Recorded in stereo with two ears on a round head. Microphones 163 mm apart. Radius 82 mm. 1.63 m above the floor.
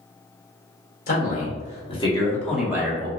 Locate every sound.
1.1 s a man speaking: 50° left (ahead or behind), 1.8 m; by 3.1 s 30° right (ahead or behind), 1.0 m